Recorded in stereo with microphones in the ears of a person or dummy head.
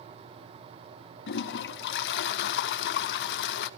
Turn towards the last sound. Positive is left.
turn(degrees=70)  # may be behind; listen again after turning